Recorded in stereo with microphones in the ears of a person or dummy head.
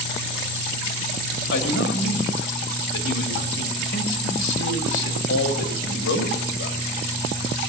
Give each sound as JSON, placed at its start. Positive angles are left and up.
{"t": 1.5, "sound": "a man speaking", "side_deg": 80, "distance_m": 2.5}